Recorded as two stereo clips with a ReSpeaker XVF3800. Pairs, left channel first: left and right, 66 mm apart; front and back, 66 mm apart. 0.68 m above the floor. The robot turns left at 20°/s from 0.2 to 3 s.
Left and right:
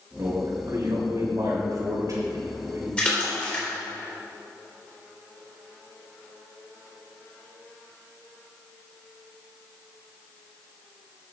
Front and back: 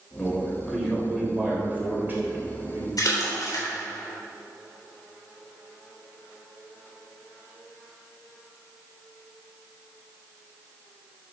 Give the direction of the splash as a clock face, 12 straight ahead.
11 o'clock.